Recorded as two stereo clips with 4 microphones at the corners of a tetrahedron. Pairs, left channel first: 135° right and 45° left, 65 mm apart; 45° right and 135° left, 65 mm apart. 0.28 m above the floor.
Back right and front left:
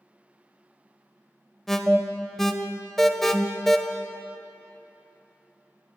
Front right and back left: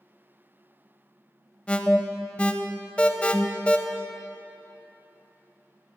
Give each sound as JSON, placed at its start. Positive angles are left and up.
{"t": 1.7, "sound": "an alarm", "azimuth_deg": -60, "distance_m": 0.6}